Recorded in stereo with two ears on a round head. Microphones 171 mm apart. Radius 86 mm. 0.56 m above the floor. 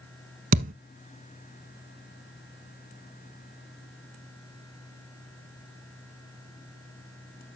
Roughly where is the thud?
Right.